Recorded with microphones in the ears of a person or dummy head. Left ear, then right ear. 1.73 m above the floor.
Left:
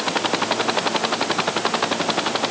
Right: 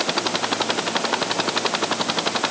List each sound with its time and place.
Only background noise.